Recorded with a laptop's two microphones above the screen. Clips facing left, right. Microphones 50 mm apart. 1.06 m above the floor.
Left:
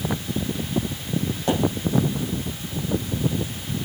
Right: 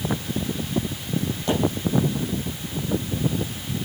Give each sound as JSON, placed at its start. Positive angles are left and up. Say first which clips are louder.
{"t": 1.5, "sound": "a pop", "louder": "left 1 dB", "side_deg": 30, "distance_m": 6.5}